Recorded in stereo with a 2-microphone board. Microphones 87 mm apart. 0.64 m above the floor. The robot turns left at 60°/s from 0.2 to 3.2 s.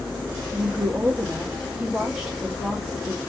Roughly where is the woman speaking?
Centre.